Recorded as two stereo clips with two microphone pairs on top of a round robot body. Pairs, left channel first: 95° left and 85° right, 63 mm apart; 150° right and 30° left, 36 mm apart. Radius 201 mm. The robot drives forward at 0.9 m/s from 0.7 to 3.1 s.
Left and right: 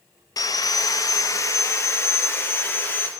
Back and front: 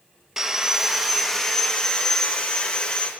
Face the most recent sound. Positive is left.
turn(degrees=150)